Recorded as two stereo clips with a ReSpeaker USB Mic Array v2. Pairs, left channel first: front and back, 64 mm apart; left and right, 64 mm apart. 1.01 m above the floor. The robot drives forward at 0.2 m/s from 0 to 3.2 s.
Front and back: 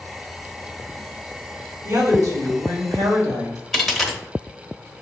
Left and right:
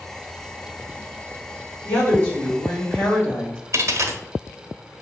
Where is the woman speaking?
150° left, 1.9 m; by 3.6 s 155° left, 2 m.